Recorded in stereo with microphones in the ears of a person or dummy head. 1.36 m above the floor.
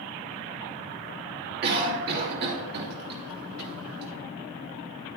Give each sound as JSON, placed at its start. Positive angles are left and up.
{"t": 1.6, "sound": "a cough", "side_deg": -55, "distance_m": 3.0}